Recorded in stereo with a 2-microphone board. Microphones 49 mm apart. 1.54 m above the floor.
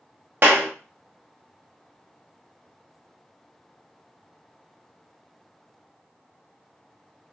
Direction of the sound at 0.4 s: 45° right (ahead or behind).